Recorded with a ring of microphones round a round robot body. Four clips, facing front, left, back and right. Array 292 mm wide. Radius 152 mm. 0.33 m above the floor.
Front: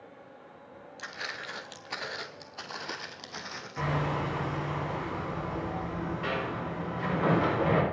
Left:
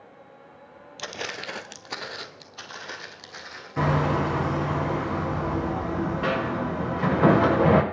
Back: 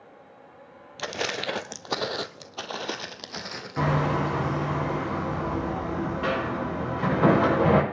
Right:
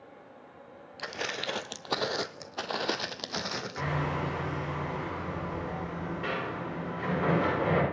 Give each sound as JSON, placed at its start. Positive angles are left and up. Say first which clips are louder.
{"t": 1.0, "sound": "footsteps", "louder": "left 1 dB, back 11 dB", "azimuth_deg": 170, "distance_m": 0.8}
{"t": 3.8, "sound": "hammering", "louder": "left 10 dB, back 6 dB", "azimuth_deg": 125, "distance_m": 6.5}